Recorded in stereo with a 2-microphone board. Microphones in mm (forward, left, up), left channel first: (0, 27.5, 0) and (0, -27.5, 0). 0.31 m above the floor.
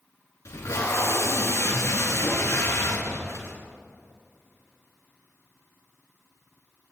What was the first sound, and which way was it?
Tape being pulled, 60° left (ahead or behind).